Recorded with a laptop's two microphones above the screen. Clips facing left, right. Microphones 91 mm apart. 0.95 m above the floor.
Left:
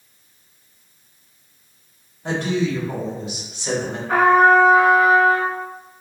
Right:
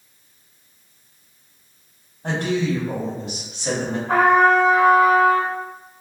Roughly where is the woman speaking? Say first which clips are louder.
Even; right.